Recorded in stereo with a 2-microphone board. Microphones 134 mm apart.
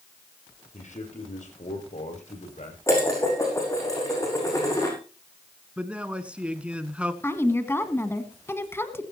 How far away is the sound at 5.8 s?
About 1.5 m.